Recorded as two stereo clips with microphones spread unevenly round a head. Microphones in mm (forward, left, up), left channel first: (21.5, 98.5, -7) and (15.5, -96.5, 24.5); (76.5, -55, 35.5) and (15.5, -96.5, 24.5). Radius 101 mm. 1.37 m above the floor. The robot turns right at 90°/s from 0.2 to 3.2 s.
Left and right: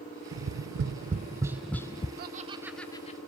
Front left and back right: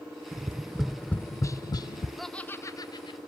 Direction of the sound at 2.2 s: 55° right.